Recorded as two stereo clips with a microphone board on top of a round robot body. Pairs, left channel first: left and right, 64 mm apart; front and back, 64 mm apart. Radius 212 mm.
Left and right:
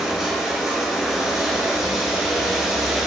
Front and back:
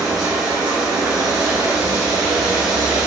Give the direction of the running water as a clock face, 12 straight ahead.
6 o'clock.